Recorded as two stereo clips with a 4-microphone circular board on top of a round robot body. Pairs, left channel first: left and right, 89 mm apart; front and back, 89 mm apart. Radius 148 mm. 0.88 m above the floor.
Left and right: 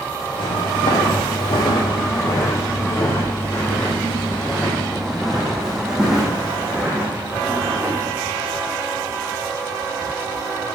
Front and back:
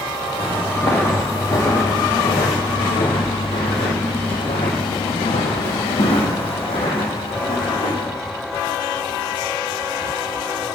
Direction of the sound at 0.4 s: 70° left.